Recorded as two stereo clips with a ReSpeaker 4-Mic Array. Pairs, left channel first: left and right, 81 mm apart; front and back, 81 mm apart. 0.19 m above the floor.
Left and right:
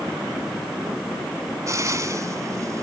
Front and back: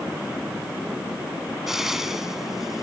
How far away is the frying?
About 1.7 m.